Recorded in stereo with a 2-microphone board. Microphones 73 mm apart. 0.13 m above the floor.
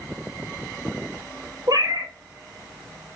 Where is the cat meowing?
65° right (ahead or behind), 1.1 m.